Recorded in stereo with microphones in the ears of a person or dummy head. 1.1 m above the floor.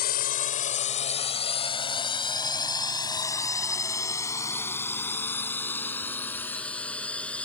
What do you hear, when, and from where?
0.0 s a drone: 50° left (ahead or behind); by 7.5 s 10° left (ahead or behind)